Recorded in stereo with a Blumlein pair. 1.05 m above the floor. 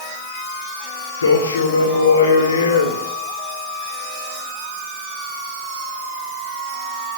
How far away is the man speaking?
About 3 m.